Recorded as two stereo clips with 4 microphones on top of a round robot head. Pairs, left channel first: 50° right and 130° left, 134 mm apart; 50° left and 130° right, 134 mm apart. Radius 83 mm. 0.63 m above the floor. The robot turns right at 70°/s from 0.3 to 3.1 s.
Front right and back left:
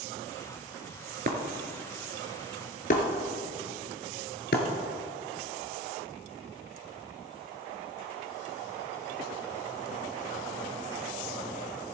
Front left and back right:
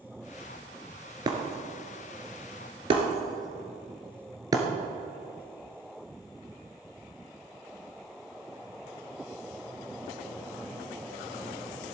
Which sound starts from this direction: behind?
Breaking glass, at 1.3 s.